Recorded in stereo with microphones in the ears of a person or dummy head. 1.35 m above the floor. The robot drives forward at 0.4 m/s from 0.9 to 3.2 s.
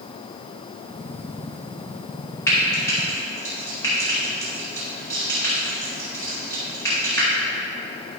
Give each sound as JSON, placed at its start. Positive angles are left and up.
{"t": 2.5, "sound": "frying", "side_deg": 15, "distance_m": 2.5}